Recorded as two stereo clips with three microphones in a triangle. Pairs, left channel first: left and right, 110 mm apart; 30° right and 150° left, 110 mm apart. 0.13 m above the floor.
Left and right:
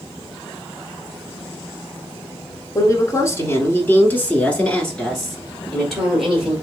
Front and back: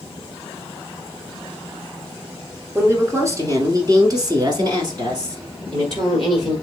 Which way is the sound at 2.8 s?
105° left.